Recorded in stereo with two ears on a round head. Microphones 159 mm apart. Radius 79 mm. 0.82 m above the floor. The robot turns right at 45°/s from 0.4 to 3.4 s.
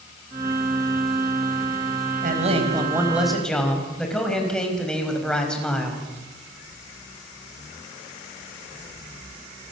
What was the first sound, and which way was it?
A man speaking, 50° right.